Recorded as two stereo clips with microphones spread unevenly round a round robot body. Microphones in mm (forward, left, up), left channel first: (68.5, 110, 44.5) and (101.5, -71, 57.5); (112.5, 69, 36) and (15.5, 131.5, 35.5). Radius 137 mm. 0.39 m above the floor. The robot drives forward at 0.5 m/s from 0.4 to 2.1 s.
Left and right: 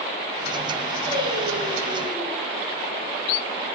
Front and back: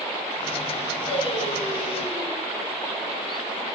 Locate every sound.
1.1 s singing: 55° right, 7 m